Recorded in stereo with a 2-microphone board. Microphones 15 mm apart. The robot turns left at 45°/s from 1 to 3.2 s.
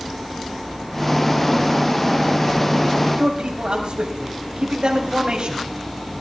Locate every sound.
3.0 s a man speaking: 65° right (ahead or behind), 3.5 m; by 5.7 s 70° right (ahead or behind), 3.5 m